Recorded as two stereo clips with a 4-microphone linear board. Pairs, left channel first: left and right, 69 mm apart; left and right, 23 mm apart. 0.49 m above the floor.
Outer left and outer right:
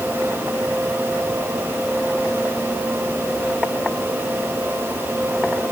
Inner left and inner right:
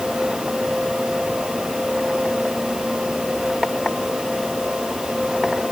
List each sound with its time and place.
Only background noise.